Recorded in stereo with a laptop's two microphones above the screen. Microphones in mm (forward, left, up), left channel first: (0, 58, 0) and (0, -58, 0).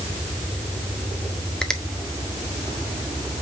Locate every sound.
1.6 s a finger snap: 5° left (ahead or behind), 1.0 m